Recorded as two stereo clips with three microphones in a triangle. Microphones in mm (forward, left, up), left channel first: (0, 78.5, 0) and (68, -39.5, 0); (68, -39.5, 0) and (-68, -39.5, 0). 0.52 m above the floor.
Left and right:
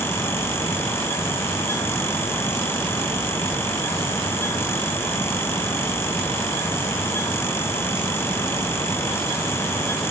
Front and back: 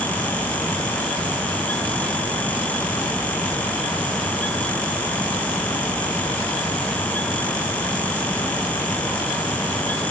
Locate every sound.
Only background noise.